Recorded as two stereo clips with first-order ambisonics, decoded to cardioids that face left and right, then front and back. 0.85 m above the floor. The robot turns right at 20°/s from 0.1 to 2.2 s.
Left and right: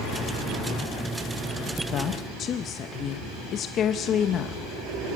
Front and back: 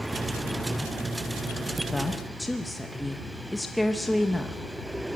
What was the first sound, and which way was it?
A woman speaking, 75° left.